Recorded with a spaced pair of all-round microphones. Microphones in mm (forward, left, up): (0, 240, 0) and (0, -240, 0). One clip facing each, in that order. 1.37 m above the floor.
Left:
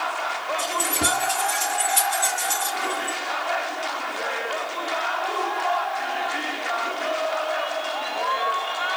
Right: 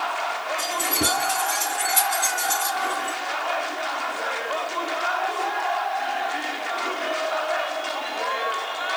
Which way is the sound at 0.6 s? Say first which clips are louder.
Right 1 dB; 45° right (ahead or behind).